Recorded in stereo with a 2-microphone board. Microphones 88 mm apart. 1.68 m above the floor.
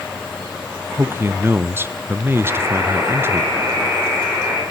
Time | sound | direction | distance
1.0 | a man speaking | 25° right (ahead or behind) | 0.7 m
2.4 | a buzzer | 30° right (ahead or behind) | 4.5 m